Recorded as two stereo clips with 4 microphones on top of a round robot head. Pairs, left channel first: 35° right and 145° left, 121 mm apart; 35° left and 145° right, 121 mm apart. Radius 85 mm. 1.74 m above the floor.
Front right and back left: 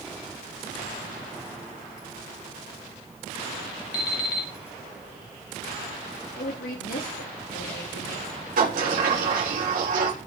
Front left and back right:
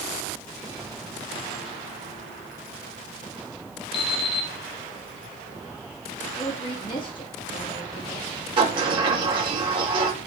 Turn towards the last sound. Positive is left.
turn(degrees=165)